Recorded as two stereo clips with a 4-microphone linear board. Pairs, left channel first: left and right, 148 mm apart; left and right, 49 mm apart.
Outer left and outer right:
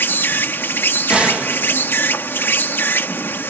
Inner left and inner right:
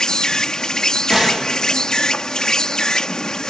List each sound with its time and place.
0.0 s an insect: 15° left (ahead or behind)
1.1 s a gunshot: 5° right (ahead or behind)